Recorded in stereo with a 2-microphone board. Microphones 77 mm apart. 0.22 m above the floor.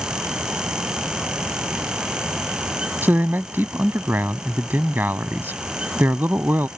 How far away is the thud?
I don't hear a thud.